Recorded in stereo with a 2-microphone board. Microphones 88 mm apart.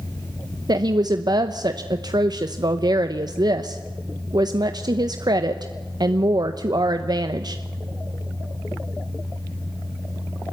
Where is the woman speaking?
50° right (ahead or behind), 0.9 m.